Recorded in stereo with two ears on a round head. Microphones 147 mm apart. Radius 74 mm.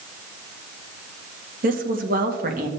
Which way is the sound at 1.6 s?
55° right (ahead or behind).